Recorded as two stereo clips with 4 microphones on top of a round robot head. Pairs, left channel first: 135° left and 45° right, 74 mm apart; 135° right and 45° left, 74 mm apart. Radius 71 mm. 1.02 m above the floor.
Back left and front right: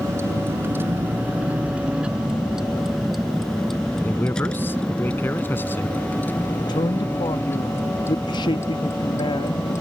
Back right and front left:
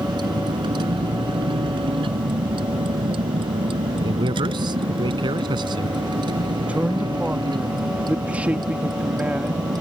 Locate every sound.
0.0 s a vehicle: 10° left; by 9.8 s 80° left
4.0 s a man speaking: 70° left
6.6 s a man speaking: 115° left